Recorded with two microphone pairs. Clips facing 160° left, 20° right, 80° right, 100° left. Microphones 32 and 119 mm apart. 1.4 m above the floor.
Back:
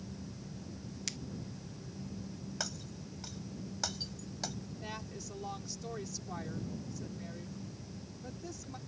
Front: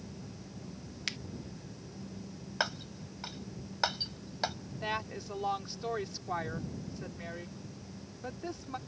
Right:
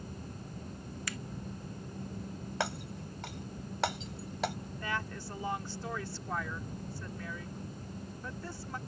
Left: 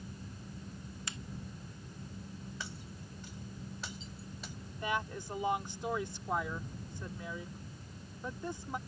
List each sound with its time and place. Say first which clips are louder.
1.1 s a finger snap: front 7 dB, right 5 dB; 35° left
2.6 s breaking glass: front 11 dB, right 10 dB; 70° right
4.8 s a woman speaking: front 12 dB, left 3 dB; 30° left